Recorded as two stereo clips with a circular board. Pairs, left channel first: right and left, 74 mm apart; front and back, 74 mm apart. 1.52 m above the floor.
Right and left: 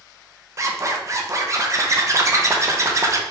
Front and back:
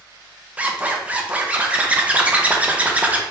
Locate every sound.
0.6 s a zipper: 115° left, 0.7 m